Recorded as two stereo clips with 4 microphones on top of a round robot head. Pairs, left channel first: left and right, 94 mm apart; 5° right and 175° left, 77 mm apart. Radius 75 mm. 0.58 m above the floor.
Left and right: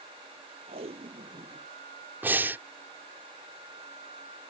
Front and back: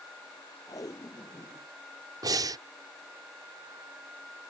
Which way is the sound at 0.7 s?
60° right.